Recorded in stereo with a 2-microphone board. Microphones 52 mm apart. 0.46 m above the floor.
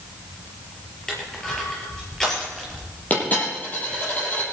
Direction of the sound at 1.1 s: 10° left (ahead or behind).